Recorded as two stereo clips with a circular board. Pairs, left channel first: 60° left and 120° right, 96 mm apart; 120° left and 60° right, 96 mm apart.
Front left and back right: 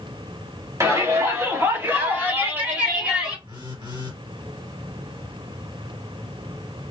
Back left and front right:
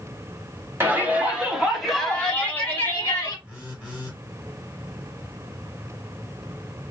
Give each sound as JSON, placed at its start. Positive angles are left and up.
{"t": 0.8, "sound": "a shout", "azimuth_deg": -100, "distance_m": 1.4}
{"t": 3.5, "sound": "a phone buzzing", "azimuth_deg": -145, "distance_m": 2.0}